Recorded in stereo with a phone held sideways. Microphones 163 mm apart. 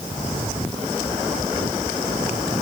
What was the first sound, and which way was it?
Only background noise.